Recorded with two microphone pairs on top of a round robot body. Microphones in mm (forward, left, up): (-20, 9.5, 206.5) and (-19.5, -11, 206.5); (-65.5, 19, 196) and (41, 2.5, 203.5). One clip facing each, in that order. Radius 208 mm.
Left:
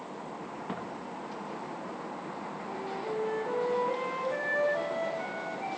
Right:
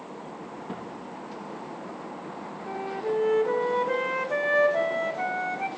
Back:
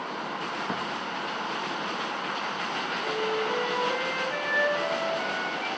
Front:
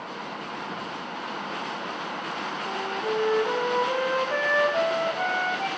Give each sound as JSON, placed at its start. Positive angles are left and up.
{"t": 0.7, "sound": "footsteps", "azimuth_deg": 150, "distance_m": 3.0}
{"t": 2.7, "sound": "a flute", "azimuth_deg": -50, "distance_m": 0.7}